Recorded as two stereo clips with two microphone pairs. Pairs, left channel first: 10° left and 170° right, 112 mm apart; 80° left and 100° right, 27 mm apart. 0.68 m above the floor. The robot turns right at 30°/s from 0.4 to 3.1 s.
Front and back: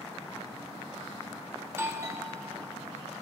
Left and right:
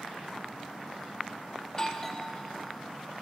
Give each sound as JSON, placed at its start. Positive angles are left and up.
{"t": 1.7, "sound": "a doorbell", "azimuth_deg": 135, "distance_m": 1.2}